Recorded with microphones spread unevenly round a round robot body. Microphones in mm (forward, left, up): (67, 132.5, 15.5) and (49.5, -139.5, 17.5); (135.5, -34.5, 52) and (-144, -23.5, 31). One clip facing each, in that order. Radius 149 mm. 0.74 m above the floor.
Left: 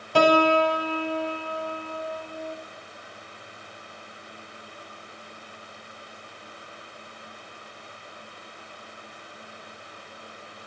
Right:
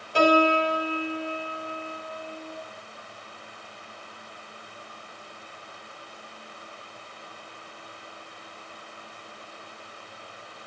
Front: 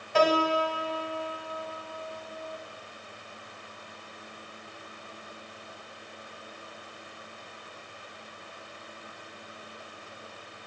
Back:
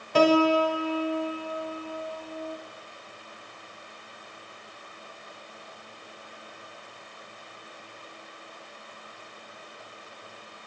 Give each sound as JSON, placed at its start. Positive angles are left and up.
{"t": 0.1, "sound": "a piano", "azimuth_deg": 120, "distance_m": 1.0}